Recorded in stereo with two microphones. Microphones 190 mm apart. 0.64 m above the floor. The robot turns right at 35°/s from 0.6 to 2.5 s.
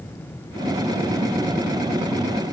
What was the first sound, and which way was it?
Only background noise.